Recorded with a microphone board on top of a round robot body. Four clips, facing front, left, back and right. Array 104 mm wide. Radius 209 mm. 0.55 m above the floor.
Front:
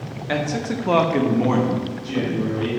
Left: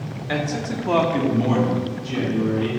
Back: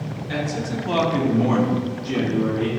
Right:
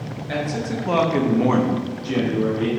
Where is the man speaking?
20° left, 1.5 m; by 2.7 s 110° right, 1.9 m.